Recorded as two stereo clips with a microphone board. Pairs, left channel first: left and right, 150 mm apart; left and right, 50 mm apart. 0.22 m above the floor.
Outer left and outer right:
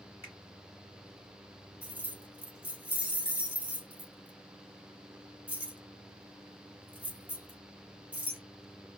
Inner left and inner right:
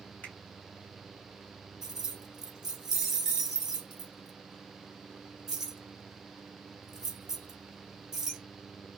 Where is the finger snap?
35° left (ahead or behind), 2 m.